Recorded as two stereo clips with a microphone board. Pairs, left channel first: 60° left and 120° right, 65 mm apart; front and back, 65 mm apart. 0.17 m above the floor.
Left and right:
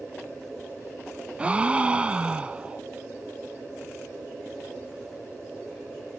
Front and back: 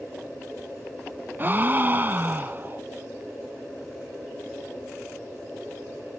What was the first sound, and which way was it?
A gasp, 175° right.